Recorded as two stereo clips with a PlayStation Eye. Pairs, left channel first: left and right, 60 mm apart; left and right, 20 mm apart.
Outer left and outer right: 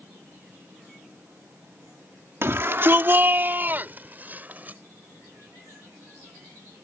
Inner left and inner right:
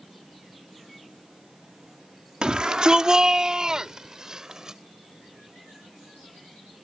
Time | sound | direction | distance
2.4 | a shout | 45° right (ahead or behind) | ?